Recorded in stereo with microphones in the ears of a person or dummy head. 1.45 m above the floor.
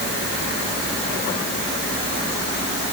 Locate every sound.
Only background noise.